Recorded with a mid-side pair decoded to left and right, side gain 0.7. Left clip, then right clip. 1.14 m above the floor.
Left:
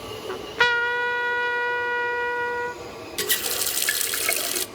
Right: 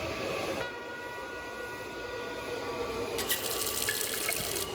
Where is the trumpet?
60° left, 0.7 m.